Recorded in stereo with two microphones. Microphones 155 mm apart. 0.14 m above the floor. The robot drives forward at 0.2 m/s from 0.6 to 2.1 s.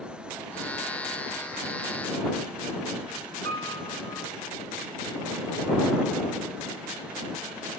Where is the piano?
20° left (ahead or behind), 1.4 m.